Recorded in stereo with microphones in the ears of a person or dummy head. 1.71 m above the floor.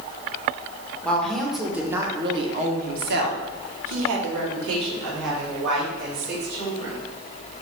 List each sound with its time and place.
1.0 s a woman speaking: 10° left (ahead or behind), 2.0 m; by 7.0 s 65° right (ahead or behind), 4.5 m